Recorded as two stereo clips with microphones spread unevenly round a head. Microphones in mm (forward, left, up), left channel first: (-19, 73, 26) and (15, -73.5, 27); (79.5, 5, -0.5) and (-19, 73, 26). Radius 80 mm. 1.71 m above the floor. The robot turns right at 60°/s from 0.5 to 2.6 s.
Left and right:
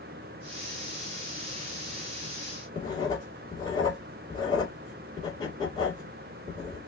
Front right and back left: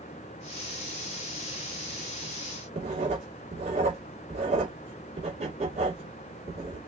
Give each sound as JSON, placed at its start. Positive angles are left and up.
{"t": 2.8, "sound": "writing", "azimuth_deg": 165, "distance_m": 1.9}